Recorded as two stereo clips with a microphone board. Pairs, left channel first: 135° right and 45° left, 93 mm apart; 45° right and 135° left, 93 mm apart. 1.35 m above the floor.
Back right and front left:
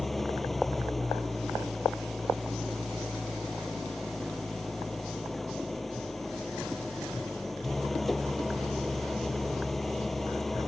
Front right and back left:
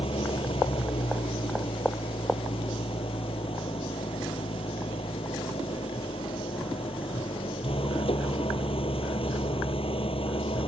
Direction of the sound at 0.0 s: 45° right.